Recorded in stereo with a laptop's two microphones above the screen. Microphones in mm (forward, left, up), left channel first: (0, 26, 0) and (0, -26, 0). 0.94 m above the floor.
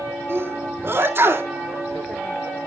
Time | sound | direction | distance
0.3 | a sneeze | 50° right (ahead or behind) | 1.8 m